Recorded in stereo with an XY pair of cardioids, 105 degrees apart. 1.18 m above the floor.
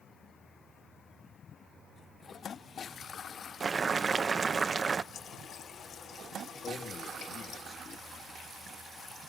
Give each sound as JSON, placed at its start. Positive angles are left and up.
{"t": 3.6, "sound": "boiling", "azimuth_deg": -35, "distance_m": 0.7}
{"t": 5.1, "sound": "a running tap", "azimuth_deg": 60, "distance_m": 5.0}
{"t": 6.6, "sound": "a man speaking", "azimuth_deg": 60, "distance_m": 2.5}